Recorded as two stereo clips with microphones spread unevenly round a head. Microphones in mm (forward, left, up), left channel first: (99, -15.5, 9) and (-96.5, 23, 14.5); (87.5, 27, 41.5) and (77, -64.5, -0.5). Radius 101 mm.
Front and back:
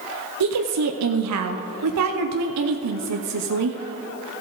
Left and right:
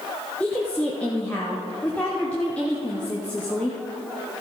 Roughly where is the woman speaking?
Behind.